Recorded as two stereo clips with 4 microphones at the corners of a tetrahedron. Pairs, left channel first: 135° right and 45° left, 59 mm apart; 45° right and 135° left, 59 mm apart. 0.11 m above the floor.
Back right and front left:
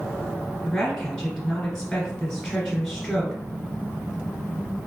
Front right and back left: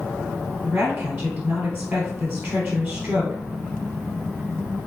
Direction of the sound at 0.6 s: 150° left.